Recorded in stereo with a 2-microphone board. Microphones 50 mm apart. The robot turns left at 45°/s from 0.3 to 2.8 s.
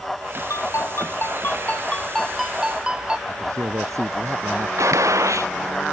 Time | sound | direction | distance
0.5 | a ringtone | 85° left | ?
3.3 | a man speaking | 80° right | ?
4.8 | a gunshot | 90° right | ?